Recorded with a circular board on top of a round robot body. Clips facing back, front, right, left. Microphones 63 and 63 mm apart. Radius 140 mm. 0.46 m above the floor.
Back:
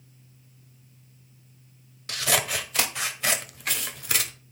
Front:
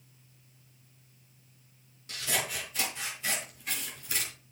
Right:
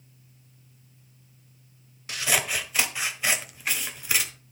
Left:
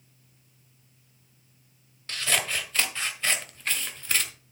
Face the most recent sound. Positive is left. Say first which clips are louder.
# back 7 dB, right 1 dB
turn(degrees=-170)